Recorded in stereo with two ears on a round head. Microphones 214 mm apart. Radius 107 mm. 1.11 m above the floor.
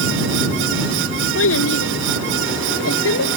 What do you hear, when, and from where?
1.4 s a child speaking: 55° left (ahead or behind); by 3.3 s 60° left (ahead or behind)